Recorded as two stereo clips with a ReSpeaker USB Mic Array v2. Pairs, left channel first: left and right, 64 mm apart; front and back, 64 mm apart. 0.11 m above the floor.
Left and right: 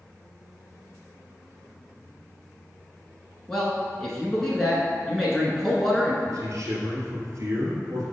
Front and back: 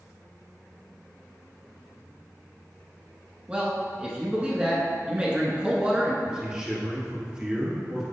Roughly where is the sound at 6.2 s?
Right.